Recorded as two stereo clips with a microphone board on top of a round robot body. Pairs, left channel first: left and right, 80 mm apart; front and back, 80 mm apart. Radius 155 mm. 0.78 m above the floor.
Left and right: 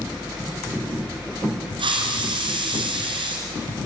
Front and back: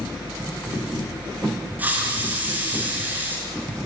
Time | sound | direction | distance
1.8 | a hiss | 110° right | 3 m